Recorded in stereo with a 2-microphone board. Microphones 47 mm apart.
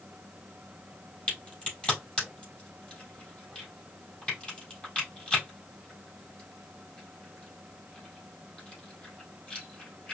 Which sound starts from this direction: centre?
A crack, at 1.3 s.